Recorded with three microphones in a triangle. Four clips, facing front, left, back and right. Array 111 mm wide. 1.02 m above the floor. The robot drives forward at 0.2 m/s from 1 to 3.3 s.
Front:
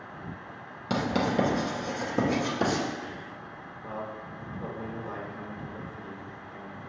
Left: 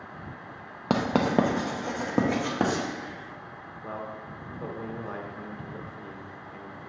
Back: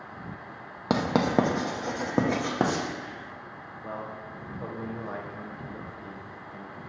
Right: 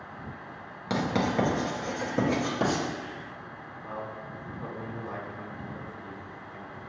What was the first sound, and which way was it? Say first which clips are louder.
Writing: left 3 dB, back 3 dB; 135° left.